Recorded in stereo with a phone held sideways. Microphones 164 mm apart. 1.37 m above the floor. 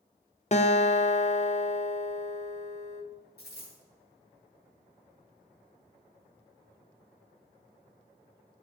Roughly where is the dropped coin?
Left.